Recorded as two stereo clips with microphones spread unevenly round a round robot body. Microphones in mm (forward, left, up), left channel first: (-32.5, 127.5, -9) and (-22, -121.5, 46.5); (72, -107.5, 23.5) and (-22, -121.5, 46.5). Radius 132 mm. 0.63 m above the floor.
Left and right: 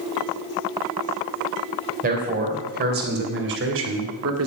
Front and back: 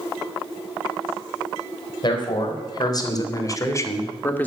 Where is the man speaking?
25° right, 3.5 m; by 4.5 s 55° right, 1.9 m.